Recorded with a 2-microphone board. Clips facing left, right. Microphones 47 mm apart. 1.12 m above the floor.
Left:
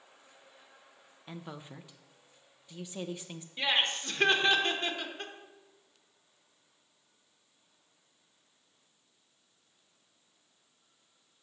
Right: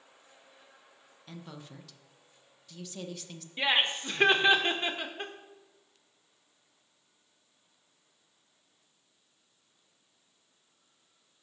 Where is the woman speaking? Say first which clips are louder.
Left 2 dB; 20° left (ahead or behind), 0.6 m.